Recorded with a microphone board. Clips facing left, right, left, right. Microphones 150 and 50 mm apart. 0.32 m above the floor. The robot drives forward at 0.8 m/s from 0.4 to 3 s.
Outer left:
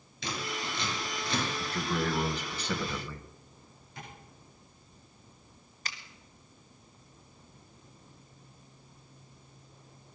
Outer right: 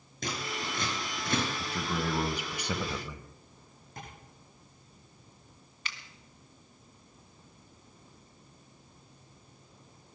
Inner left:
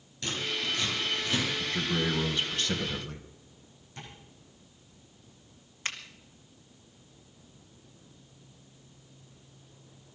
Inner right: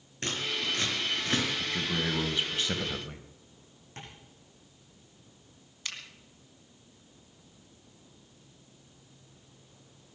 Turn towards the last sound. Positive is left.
turn(degrees=40)  # may be behind; listen again after turning